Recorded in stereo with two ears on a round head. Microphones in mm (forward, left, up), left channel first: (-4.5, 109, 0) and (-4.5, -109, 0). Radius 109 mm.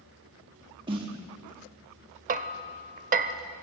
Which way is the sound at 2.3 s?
35° right (ahead or behind).